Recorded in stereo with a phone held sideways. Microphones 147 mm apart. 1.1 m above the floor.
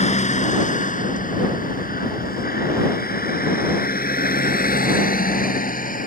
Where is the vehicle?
50° left (ahead or behind); by 6.1 s 65° left (ahead or behind).